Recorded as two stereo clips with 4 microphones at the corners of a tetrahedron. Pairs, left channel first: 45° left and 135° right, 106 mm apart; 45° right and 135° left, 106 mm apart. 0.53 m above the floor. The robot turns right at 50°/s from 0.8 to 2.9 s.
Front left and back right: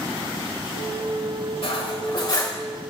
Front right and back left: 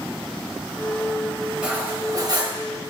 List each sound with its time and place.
1.6 s cutlery clinking: 55° left, 1.4 m; by 2.6 s 105° left, 1.4 m